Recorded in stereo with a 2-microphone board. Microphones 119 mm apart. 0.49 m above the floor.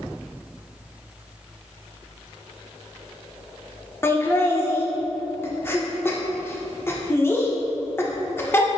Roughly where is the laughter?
Centre.